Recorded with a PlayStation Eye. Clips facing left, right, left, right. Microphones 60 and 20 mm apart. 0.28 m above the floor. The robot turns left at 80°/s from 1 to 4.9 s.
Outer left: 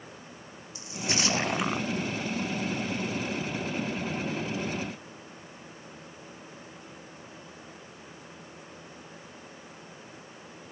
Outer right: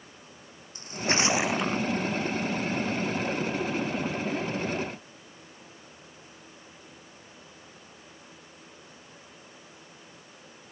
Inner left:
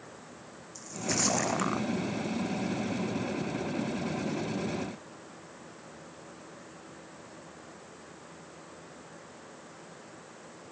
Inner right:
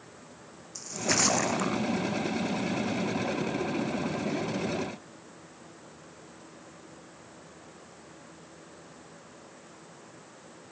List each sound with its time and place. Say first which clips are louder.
0.8 s a splash: outer right 4 dB, inner right 4 dB; 135° right; by 1.9 s 155° left